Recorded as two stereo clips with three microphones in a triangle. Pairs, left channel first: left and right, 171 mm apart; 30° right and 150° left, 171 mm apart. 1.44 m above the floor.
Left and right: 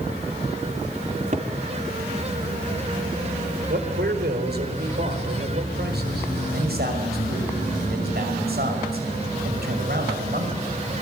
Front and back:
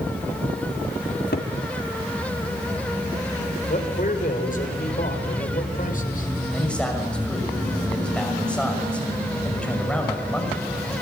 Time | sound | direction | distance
1.1 | a cupboard door | 45° right | 3 m
3.7 | a man speaking | 70° right | 5 m
6.5 | a man speaking | 115° right | 6.5 m